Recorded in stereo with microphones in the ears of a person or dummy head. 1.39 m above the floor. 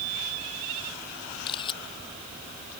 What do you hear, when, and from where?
1.5 s a camera shutter: 30° left (ahead or behind)